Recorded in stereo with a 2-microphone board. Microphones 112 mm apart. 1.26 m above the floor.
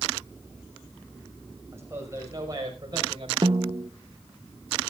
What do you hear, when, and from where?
1.7 s a man speaking: 25° right (ahead or behind), 5.5 m; by 3.3 s 45° right (ahead or behind), 5.5 m
3.4 s a snare drum: 40° right (ahead or behind), 0.6 m